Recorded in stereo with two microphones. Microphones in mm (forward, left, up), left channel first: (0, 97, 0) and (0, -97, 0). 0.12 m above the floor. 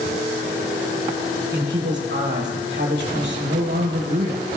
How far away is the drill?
I don't hear a drill.